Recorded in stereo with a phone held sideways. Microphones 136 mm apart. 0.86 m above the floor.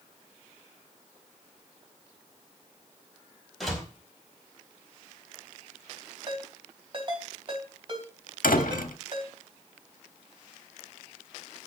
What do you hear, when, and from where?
3.6 s a door slam: centre (ahead or behind), 4.5 m
6.3 s a ringtone: 35° right (ahead or behind), 3 m
8.4 s a door slam: 90° left, 1.1 m